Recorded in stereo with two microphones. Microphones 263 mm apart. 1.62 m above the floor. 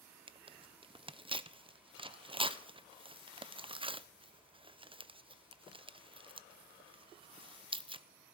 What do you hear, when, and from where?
0.3 s tearing paper: 20° right (ahead or behind), 0.5 m